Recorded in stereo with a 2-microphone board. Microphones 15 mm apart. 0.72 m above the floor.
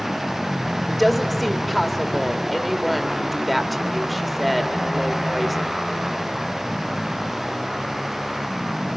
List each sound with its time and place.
0.9 s a woman speaking: 10° left (ahead or behind), 1.9 m